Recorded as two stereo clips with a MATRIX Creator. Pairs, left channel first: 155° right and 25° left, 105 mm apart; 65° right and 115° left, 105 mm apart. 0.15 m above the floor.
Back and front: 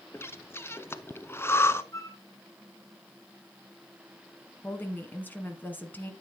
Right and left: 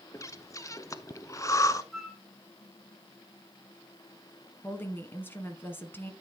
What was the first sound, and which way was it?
Breathing, 105° right.